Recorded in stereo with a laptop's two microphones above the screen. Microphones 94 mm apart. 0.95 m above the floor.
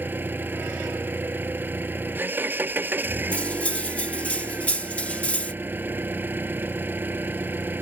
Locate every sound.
0.0 s an engine running: 20° right (ahead or behind)
3.3 s cutlery clinking: 15° left (ahead or behind)